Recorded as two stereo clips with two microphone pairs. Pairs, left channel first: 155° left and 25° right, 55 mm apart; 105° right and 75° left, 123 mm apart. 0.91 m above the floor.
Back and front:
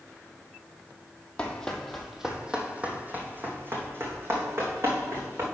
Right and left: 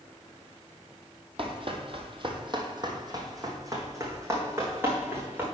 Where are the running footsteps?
90° left, 1.3 m; by 5.4 s straight ahead, 3 m.